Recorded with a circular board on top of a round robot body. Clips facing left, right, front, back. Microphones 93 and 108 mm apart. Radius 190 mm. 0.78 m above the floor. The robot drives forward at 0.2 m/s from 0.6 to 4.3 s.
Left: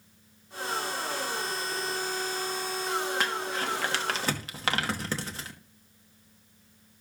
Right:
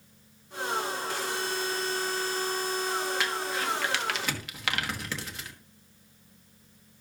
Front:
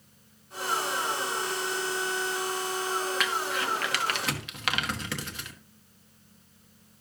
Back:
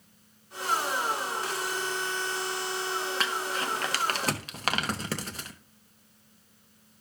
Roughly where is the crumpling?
Behind left.